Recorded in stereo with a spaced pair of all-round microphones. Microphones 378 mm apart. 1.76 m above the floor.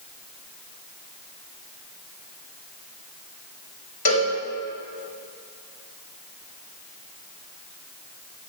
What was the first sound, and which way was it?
A cowbell, 70° left (ahead or behind).